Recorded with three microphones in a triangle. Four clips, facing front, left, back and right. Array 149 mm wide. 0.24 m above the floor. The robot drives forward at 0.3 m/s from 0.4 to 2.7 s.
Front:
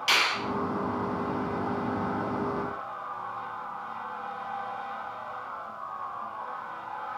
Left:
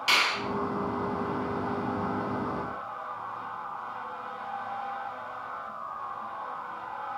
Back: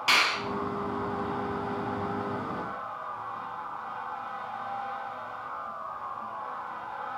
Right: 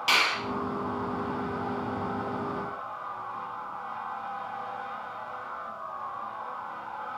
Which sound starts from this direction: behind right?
A finger snap, at 0.1 s.